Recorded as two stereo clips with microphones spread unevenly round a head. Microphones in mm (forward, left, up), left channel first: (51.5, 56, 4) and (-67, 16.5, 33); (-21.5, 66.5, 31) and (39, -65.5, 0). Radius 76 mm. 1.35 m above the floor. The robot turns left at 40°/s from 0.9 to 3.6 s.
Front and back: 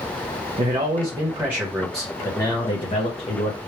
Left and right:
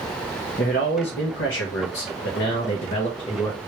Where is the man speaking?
150° left, 0.9 m; by 3.6 s 40° left, 0.9 m.